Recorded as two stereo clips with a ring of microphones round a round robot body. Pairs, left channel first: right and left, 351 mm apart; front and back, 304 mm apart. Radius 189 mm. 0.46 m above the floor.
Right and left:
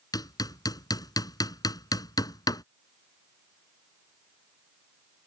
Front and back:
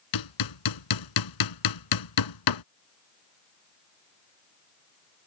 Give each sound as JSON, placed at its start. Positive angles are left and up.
{"t": 0.1, "sound": "hammering", "azimuth_deg": -10}